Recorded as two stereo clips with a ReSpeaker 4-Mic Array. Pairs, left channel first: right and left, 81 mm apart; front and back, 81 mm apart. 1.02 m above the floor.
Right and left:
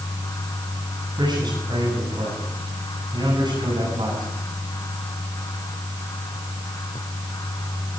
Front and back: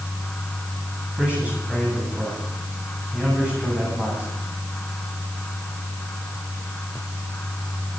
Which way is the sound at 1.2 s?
105° left.